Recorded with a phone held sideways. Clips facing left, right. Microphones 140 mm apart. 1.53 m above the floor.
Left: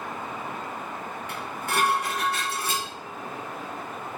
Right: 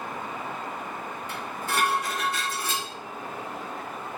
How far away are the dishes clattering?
About 1.5 m.